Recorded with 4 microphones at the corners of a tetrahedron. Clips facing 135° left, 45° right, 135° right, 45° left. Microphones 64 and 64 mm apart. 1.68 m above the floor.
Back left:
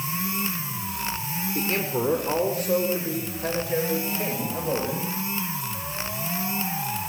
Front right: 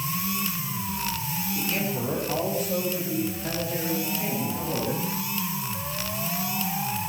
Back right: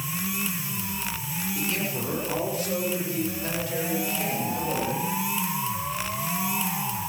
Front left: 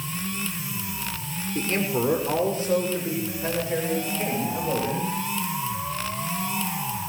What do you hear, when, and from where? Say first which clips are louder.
1.6 s a man speaking: back left 4 dB, front left 7 dB; 90° left, 5.5 m; by 5.2 s 115° left, 10 m